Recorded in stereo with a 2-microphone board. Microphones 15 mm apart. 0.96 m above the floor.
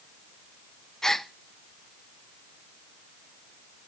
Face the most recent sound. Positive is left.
turn(degrees=30)  # may be behind; listen again after turning